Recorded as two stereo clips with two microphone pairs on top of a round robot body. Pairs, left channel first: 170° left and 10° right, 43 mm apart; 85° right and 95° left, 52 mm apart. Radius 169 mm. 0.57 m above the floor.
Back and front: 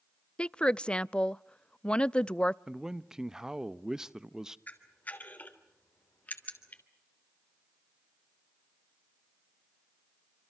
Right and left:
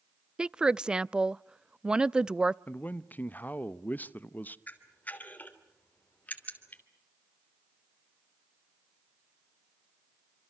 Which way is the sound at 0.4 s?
130° left.